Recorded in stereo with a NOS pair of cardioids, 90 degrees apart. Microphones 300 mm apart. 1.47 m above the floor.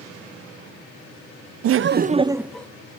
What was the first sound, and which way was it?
Laughter, 55° right.